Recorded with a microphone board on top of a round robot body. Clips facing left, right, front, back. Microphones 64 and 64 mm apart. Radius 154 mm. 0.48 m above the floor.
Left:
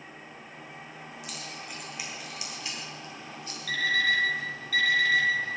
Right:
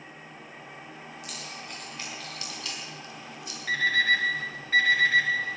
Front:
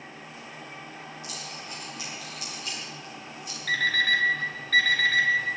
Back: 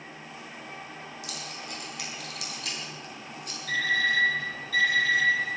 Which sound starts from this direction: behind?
Keys jangling, at 1.2 s.